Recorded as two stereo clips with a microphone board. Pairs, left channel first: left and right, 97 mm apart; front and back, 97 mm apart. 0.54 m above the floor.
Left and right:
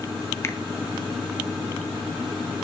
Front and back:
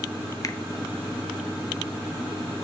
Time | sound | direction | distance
0.4 | a finger snap | 40° left | 0.5 m